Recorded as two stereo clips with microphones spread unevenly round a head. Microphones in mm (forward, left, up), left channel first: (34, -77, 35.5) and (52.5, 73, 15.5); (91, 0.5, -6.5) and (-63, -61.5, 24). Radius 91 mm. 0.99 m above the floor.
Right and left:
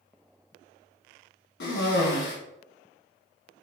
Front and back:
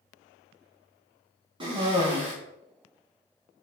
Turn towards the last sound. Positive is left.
turn(degrees=-95)